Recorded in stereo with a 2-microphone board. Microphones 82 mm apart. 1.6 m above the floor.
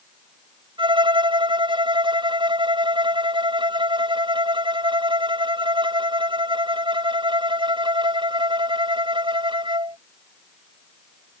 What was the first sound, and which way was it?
A violin, 80° right.